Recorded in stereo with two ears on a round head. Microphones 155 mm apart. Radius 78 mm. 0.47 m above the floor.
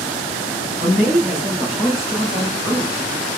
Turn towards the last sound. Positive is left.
turn(degrees=5)  # may be behind; listen again after turning